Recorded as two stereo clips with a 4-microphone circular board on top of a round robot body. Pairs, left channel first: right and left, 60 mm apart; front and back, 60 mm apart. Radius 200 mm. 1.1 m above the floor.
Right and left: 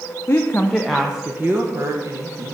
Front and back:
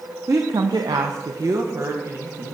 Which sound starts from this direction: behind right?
A woman speaking, at 0.3 s.